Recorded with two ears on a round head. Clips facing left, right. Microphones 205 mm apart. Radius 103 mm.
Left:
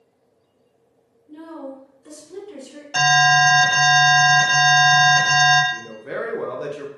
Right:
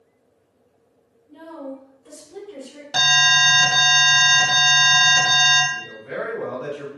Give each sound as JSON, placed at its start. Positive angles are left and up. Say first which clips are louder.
{"t": 1.3, "sound": "a woman speaking", "louder": "even", "side_deg": 60, "distance_m": 1.7}
{"t": 2.9, "sound": "an alarm", "louder": "left 9 dB", "side_deg": -25, "distance_m": 0.9}
{"t": 5.7, "sound": "a man speaking", "louder": "left 2 dB", "side_deg": 60, "distance_m": 0.7}